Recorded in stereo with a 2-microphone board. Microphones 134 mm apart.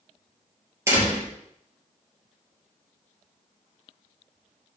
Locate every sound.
0.9 s a door slam: 20° right (ahead or behind), 4 m